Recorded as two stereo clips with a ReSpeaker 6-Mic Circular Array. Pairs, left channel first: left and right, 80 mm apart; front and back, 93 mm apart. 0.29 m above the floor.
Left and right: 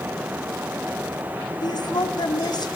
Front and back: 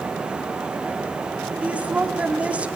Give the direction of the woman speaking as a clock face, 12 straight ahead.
8 o'clock.